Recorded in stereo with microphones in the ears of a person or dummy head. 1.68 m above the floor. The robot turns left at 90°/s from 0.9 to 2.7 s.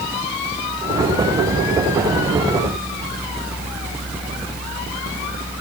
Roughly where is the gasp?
I don't hear a gasp.